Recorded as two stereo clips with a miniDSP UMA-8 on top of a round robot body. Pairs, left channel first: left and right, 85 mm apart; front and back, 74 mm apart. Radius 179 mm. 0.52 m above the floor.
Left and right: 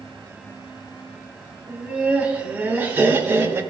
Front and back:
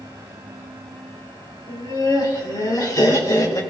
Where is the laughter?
10° right, 2.5 m; by 3.6 s 30° right, 3 m.